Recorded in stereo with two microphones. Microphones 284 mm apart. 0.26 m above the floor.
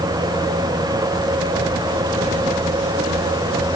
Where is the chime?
I don't hear a chime.